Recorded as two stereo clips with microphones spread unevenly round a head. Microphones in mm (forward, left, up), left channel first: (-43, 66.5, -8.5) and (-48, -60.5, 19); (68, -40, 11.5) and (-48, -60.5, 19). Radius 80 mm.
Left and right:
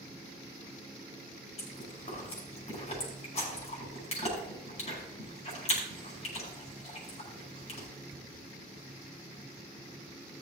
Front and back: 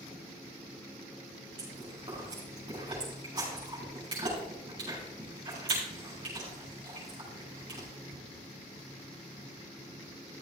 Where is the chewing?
125° left, 5.5 m.